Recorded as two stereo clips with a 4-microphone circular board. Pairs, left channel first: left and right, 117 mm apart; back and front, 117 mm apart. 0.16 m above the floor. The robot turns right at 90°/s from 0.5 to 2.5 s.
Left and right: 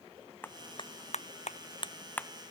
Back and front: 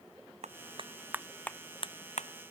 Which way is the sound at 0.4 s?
15° left.